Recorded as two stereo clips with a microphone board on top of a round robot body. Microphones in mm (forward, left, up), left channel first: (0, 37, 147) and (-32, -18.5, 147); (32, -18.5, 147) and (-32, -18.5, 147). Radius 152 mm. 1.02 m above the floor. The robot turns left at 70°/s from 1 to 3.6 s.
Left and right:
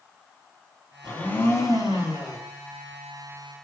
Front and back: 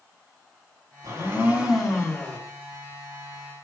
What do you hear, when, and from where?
1.0 s a blender: 140° left, 3 m; by 2.4 s 45° left, 3 m